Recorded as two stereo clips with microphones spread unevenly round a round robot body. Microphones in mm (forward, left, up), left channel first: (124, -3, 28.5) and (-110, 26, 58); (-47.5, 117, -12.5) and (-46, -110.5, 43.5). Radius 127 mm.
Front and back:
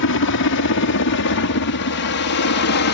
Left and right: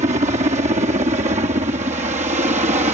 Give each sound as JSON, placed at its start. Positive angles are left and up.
{"t": 0.0, "sound": "a helicopter", "azimuth_deg": -20}